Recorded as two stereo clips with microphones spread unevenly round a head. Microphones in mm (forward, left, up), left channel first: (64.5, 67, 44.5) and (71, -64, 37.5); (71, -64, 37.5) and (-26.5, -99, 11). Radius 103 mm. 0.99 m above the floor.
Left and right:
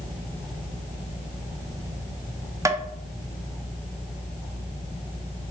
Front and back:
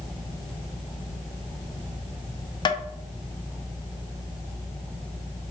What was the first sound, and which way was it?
Tapping, 20° right.